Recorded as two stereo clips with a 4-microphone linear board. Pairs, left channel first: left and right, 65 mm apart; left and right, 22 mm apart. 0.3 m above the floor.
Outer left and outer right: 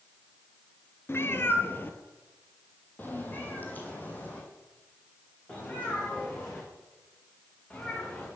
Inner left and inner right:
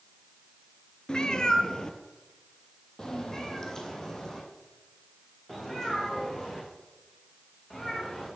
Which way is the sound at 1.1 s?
40° left (ahead or behind).